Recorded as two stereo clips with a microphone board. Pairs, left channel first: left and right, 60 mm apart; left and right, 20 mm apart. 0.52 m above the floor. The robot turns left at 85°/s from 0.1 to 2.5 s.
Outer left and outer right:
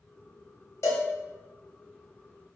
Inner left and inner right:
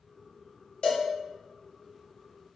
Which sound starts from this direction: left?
A cowbell, at 0.8 s.